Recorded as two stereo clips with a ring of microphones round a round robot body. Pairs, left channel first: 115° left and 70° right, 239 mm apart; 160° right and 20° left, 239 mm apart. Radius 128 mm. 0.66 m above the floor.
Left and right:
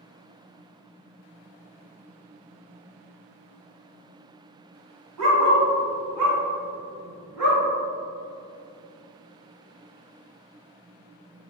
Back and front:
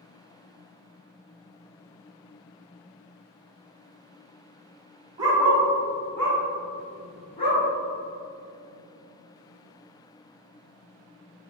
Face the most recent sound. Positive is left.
turn(degrees=-90)